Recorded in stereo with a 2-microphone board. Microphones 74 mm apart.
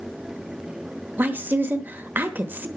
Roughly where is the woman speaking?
Right.